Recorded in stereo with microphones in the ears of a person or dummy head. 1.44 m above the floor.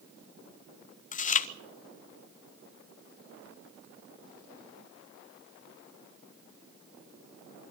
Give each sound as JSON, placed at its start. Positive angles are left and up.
{"t": 1.1, "sound": "chewing", "side_deg": 40, "distance_m": 0.9}